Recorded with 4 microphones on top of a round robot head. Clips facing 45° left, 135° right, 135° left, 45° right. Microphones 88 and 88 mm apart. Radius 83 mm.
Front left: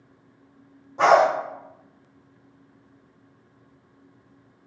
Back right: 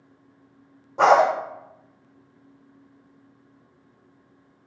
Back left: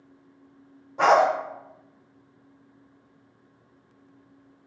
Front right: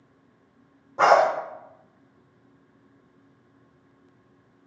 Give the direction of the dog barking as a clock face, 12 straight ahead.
3 o'clock.